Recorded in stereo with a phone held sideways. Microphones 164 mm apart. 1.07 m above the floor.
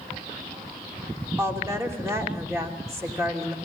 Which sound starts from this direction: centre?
A woman speaking, at 1.4 s.